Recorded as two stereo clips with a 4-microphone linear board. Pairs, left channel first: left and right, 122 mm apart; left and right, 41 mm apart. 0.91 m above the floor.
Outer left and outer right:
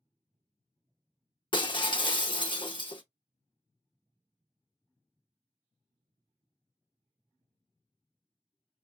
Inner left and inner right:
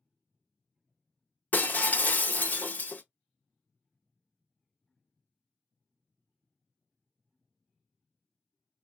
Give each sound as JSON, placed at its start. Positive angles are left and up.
{"t": 1.5, "sound": "breaking glass", "side_deg": 40, "distance_m": 0.6}